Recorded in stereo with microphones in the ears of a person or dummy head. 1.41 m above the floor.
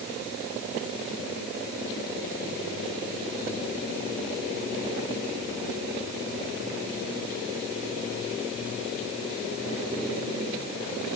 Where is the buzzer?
I don't hear a buzzer.